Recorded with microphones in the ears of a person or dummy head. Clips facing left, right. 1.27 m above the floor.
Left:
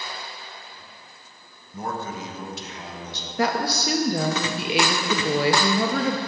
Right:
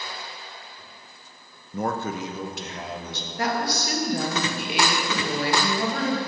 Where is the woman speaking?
60° left (ahead or behind), 0.8 m.